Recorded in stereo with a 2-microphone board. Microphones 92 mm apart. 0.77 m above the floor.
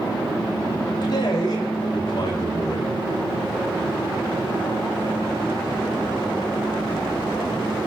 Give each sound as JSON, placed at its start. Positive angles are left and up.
{"t": 1.0, "sound": "a man speaking", "side_deg": 55, "distance_m": 3.0}